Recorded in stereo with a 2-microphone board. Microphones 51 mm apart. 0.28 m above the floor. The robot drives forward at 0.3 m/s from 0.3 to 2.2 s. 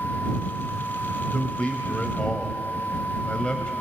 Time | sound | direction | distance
1.3 | a man speaking | 25° left (ahead or behind) | 1.2 m